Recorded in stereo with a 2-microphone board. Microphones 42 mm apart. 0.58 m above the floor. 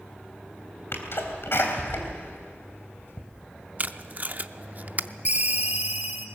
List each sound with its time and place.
0.9 s a sneeze: 65° left (ahead or behind), 3.5 m
3.8 s tape being pulled: 40° right (ahead or behind), 0.5 m
5.2 s a ringtone: 40° right (ahead or behind), 1.6 m